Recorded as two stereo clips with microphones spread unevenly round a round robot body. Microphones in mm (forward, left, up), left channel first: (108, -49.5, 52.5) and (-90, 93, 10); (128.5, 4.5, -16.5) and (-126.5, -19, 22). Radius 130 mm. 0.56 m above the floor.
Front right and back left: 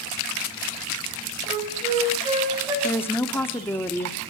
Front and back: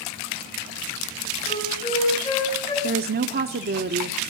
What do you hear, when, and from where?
1.5 s a flute: 75° left, 5 m
2.8 s a woman speaking: 125° right, 0.9 m